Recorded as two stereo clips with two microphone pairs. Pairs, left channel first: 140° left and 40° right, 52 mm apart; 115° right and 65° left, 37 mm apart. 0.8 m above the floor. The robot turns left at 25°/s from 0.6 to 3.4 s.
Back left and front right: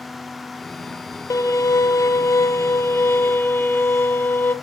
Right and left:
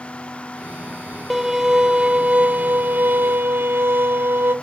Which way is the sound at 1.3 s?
145° left.